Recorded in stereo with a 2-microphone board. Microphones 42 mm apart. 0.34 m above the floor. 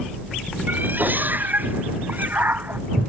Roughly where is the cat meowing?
Right.